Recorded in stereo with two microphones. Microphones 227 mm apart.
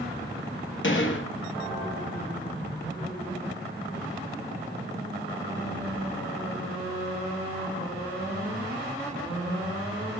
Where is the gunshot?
65° left (ahead or behind), 0.9 m.